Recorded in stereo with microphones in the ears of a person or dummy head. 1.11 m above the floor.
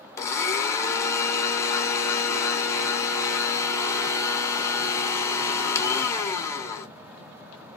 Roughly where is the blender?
Centre.